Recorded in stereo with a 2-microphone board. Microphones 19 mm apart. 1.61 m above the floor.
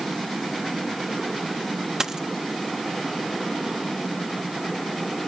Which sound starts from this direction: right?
A dropped coin, at 2.0 s.